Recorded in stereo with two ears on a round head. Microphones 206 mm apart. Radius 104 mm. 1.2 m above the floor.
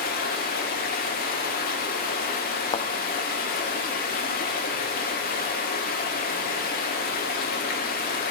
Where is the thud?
20° left (ahead or behind), 0.5 m.